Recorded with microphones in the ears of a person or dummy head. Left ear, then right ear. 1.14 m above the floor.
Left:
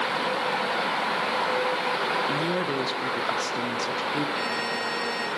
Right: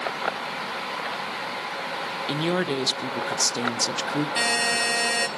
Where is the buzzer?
35° right (ahead or behind), 0.8 m.